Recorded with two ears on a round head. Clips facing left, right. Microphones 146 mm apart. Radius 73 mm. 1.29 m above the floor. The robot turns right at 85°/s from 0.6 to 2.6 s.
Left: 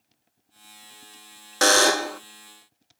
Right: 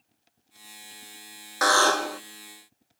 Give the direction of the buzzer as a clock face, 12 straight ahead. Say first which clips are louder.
Left 2 dB; 7 o'clock.